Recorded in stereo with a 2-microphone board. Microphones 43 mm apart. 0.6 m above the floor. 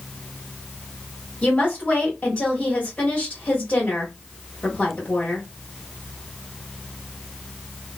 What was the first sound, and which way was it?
A woman speaking, 30° left (ahead or behind).